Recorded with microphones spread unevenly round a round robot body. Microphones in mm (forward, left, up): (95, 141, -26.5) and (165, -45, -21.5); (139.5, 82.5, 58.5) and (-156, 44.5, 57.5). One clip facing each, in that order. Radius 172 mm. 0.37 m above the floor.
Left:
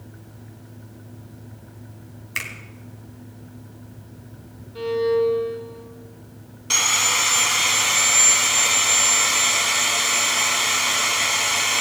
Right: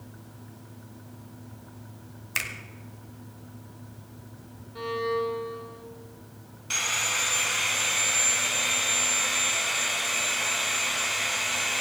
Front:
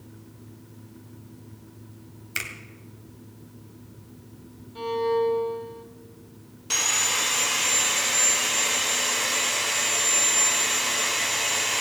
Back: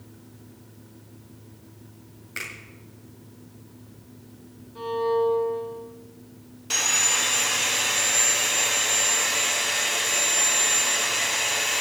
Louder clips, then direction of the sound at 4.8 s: Left 9 dB, even; 55° left.